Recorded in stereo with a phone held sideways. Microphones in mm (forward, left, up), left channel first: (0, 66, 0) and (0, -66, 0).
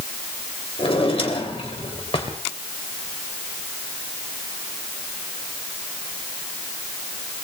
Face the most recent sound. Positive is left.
turn(degrees=45)  # may be behind; listen again after turning